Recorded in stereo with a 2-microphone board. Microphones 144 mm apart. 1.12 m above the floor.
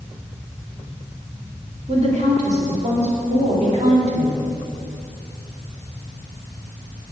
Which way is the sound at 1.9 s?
50° right (ahead or behind).